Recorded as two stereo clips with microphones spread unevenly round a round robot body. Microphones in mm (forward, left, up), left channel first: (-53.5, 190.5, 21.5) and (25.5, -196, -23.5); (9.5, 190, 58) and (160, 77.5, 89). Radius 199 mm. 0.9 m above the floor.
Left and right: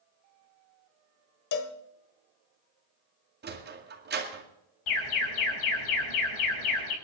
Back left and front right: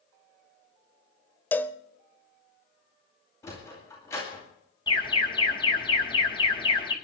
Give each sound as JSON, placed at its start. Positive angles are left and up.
{"t": 1.5, "sound": "a cowbell", "azimuth_deg": 55, "distance_m": 1.2}
{"t": 3.4, "sound": "a sliding door", "azimuth_deg": -140, "distance_m": 2.0}
{"t": 4.9, "sound": "an alarm", "azimuth_deg": 75, "distance_m": 5.0}